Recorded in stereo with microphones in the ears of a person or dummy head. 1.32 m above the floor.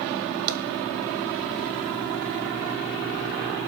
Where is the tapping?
50° right (ahead or behind), 1.3 m.